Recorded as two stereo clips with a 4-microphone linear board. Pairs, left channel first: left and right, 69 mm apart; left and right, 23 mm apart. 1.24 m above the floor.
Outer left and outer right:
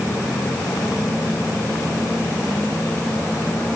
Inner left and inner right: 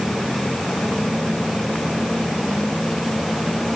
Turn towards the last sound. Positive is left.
No sound to turn to.